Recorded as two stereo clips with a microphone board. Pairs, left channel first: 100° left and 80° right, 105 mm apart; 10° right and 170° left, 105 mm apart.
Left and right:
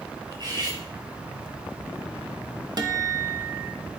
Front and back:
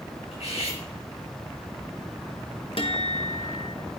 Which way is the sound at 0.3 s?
30° right.